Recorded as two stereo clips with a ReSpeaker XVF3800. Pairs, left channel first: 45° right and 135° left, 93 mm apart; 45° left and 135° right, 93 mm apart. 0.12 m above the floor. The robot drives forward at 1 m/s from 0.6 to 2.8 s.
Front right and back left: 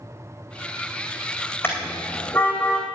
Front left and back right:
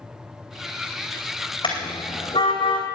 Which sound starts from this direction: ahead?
A car horn, at 1.6 s.